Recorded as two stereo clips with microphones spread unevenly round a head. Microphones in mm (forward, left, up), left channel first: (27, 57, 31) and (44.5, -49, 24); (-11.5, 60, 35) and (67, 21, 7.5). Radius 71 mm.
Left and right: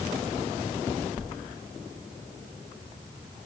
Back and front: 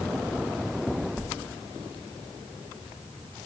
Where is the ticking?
No ticking in this recording.